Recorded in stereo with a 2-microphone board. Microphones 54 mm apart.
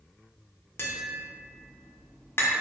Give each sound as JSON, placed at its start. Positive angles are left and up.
{"t": 0.8, "sound": "tapping", "side_deg": 45, "distance_m": 0.5}